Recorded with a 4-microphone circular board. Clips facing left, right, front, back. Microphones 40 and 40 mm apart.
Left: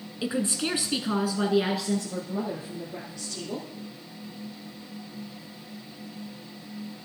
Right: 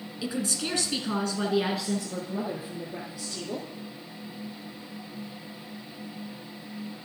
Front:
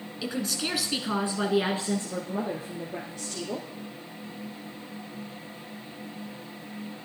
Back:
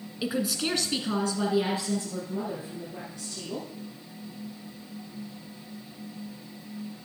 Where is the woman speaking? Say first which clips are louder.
Left 3 dB, back 2 dB; 115° left, 1.2 m; by 3.7 s 15° right, 2.5 m.